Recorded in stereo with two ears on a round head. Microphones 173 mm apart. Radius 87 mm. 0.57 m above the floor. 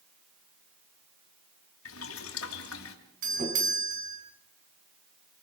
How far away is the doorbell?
About 6 m.